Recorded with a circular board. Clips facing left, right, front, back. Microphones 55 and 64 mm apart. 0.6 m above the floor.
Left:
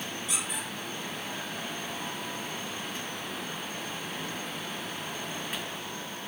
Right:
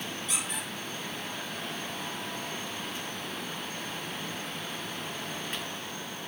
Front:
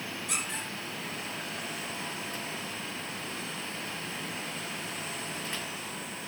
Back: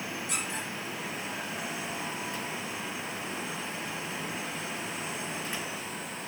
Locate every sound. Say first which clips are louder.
0.3 s a squeak: left 1 dB, front 1 dB; 5° left, 5 m